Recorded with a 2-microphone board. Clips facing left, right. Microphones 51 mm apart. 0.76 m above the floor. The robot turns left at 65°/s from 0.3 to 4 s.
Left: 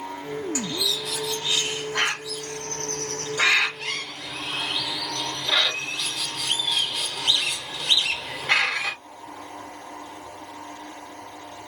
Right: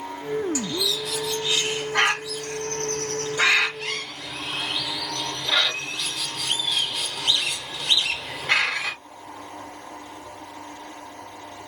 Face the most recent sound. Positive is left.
turn(degrees=5)  # may be behind; listen again after turning